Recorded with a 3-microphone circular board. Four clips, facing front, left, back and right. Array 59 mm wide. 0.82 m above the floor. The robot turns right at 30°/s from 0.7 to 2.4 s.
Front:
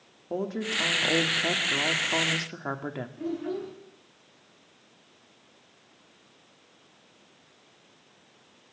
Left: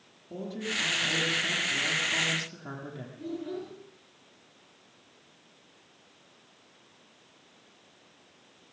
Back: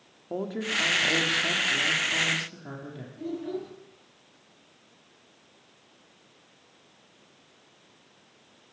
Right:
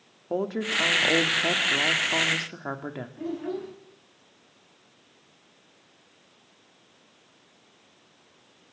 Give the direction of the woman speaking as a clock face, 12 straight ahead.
3 o'clock.